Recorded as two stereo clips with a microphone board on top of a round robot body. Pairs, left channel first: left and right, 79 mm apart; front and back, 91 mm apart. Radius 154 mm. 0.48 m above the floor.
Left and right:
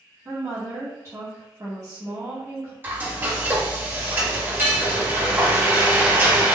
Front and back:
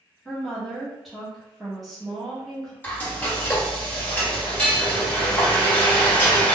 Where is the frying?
55° right, 1.5 m.